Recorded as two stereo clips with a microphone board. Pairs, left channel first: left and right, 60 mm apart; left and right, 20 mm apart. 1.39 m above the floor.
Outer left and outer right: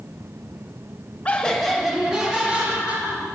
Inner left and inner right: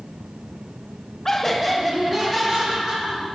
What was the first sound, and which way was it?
Laughter, 25° left (ahead or behind).